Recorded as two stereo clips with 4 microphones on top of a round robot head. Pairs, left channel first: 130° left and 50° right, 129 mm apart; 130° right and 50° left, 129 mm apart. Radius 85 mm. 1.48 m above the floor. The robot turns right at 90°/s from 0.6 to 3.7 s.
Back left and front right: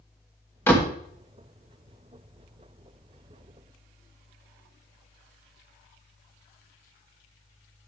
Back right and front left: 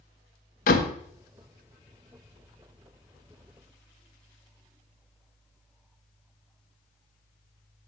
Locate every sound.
0.7 s a door slam: 155° right, 1.3 m; by 1.0 s 130° right, 1.3 m